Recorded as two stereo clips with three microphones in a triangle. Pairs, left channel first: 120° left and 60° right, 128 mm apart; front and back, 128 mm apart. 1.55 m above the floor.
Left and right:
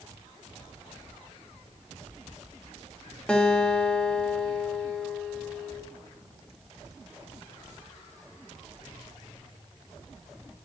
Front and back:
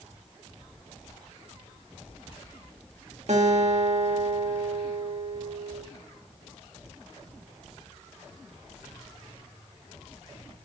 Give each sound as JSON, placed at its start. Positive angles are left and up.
{"t": 3.3, "sound": "a guitar", "azimuth_deg": -160, "distance_m": 1.8}